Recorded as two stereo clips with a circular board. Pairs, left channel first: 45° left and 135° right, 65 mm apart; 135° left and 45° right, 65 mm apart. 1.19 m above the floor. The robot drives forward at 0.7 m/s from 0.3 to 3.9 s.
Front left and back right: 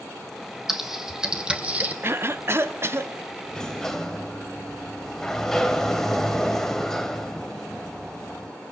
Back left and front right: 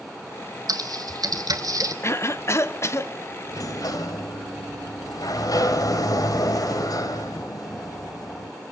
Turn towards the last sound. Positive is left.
turn(degrees=130)